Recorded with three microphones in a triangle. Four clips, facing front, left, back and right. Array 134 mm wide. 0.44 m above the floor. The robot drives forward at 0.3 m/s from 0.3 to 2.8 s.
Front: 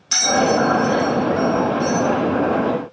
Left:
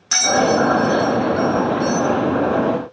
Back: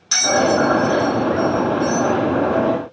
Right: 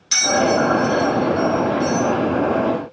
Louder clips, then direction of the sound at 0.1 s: Left 1 dB, back 1 dB; 95° left.